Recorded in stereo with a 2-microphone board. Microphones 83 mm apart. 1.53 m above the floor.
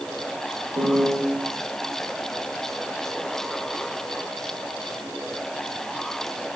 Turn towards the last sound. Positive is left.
turn(degrees=-65)  # may be behind; listen again after turning